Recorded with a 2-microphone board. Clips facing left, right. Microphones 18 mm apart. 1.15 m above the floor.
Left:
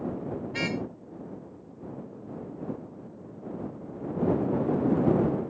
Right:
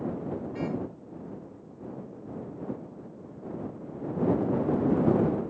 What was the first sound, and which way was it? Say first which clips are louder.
A car horn: left 4 dB; 75° left (ahead or behind).